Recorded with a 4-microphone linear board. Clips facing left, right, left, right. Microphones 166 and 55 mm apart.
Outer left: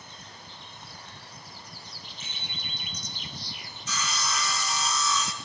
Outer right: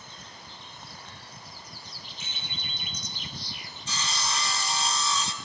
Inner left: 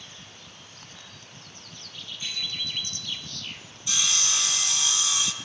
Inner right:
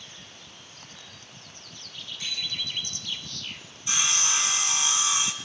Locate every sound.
2.2 s a bicycle bell: 75° right (ahead or behind), 6 m; by 3.2 s 70° right (ahead or behind), 7.5 m
3.9 s sawing: 30° right (ahead or behind), 0.6 m